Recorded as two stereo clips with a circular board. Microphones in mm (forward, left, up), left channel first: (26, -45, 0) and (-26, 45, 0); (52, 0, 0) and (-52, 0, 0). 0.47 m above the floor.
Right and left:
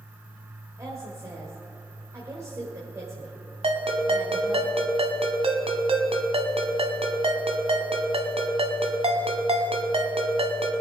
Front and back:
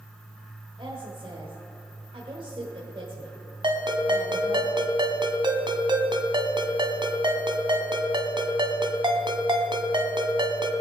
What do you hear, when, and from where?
0.8 s a woman speaking: 170° left, 1.8 m
3.6 s a ringtone: 140° left, 1.3 m